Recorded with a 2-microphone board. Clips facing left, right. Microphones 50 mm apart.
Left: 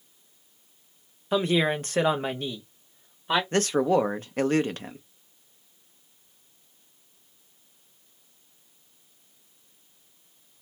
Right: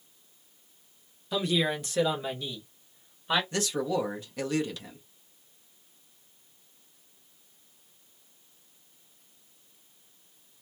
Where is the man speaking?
50° left (ahead or behind), 0.6 m.